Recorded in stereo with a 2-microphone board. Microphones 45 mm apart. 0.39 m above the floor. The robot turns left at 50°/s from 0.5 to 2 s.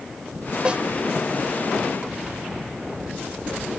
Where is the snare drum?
20° right (ahead or behind); by 0.8 s 25° right (ahead or behind).